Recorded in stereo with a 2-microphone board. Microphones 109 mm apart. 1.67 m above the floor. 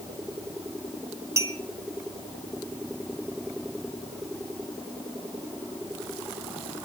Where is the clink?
30° right (ahead or behind), 1.4 m.